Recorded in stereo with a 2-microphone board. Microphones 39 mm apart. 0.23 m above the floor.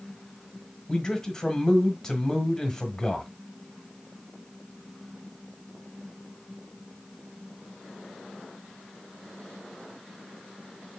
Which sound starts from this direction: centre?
A man speaking, at 0.9 s.